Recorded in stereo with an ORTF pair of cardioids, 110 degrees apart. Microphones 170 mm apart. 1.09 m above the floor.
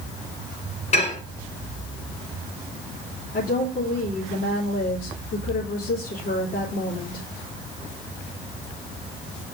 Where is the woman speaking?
55° left, 3.5 m.